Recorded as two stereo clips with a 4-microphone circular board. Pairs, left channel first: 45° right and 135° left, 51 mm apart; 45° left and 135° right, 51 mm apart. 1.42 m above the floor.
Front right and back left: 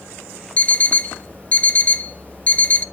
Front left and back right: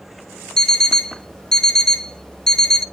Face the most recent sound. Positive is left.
turn(degrees=-20)